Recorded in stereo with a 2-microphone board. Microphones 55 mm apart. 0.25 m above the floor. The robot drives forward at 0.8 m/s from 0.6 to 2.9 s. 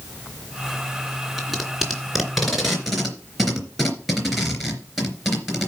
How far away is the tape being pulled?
About 2 m.